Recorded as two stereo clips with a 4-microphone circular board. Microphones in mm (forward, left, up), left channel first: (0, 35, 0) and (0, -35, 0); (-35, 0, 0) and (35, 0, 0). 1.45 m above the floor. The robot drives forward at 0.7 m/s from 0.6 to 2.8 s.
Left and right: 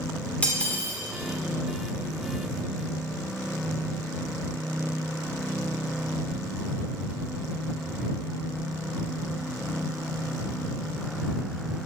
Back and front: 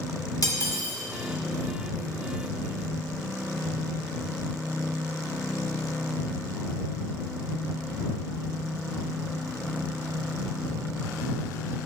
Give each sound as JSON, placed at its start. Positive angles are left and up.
{"t": 0.4, "sound": "cutlery clinking", "azimuth_deg": 160, "distance_m": 2.0}